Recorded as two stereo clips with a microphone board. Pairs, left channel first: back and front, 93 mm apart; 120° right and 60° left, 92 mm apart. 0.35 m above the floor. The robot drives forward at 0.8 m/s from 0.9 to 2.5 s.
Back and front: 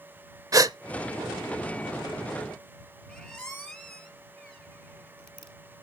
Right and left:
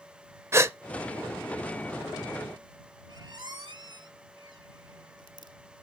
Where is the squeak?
105° left, 1.1 m.